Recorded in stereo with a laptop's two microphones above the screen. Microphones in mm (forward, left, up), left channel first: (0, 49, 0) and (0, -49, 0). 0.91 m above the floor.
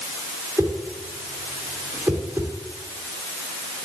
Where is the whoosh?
25° right (ahead or behind), 2.5 m.